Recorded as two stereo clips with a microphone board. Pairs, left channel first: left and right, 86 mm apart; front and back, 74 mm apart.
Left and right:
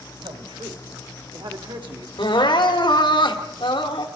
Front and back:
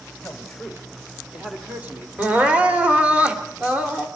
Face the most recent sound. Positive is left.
turn(degrees=110)